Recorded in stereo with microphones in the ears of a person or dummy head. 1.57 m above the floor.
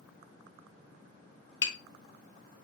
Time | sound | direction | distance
1.6 | tapping | 20° left (ahead or behind) | 1.6 m